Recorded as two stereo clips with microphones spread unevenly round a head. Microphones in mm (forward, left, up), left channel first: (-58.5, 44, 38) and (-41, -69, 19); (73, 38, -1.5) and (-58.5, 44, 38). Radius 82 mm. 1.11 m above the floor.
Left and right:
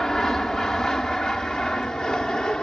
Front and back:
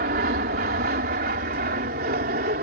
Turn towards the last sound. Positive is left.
turn(degrees=-175)